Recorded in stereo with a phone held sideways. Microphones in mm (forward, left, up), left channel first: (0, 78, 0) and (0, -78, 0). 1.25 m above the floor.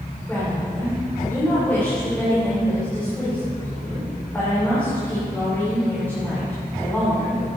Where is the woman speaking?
15° left (ahead or behind), 4 m.